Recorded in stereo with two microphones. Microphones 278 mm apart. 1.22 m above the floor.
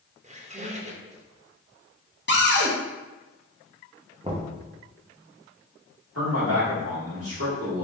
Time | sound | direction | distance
0.2 | a squeak | 25° right (ahead or behind) | 0.5 m
2.3 | a cupboard door | 40° left (ahead or behind) | 0.8 m
4.2 | knocking | 20° right (ahead or behind) | 0.8 m
6.2 | a man speaking | 55° right (ahead or behind) | 1.8 m